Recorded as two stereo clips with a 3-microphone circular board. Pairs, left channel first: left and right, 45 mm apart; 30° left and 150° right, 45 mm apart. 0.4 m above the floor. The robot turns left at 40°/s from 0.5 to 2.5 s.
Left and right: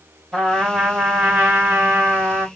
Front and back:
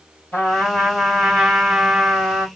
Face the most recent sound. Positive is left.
turn(degrees=-85)